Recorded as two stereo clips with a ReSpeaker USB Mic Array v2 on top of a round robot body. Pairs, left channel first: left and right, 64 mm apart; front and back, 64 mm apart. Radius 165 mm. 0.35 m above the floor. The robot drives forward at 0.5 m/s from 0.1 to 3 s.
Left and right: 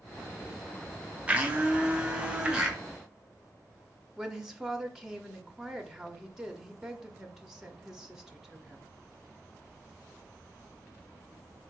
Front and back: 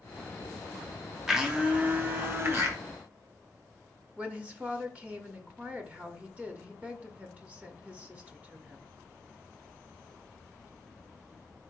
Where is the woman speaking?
160° right, 1.0 m.